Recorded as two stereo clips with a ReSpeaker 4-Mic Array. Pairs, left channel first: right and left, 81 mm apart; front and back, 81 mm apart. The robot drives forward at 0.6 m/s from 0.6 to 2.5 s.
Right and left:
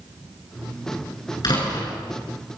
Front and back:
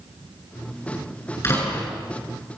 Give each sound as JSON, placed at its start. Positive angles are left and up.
{"t": 1.4, "sound": "a door slam", "azimuth_deg": -55, "distance_m": 9.5}